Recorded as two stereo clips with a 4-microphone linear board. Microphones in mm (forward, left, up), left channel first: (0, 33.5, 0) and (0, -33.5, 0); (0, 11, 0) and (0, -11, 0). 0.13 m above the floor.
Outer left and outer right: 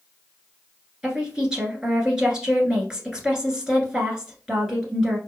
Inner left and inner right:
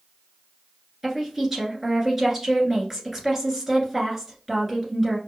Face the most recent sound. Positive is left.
turn(degrees=-10)  # may be behind; listen again after turning